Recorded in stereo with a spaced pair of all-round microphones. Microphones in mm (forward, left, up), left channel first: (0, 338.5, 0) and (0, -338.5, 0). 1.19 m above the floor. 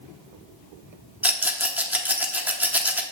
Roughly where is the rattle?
Centre.